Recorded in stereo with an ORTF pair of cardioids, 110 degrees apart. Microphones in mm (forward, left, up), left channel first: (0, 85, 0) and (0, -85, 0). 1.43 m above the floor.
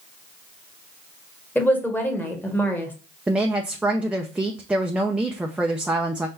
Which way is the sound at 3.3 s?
5° right.